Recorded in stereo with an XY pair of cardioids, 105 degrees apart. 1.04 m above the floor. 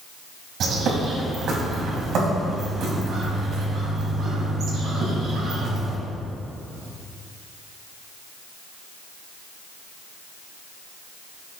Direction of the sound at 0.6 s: 70° right.